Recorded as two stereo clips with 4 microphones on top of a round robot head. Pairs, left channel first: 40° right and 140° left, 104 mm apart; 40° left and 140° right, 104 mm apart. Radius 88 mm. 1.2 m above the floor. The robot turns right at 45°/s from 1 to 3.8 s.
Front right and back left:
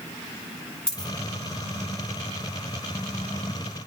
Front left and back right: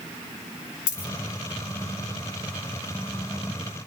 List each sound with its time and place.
0.9 s a dropped coin: 45° left, 1.1 m; by 1.1 s 50° left, 1.1 m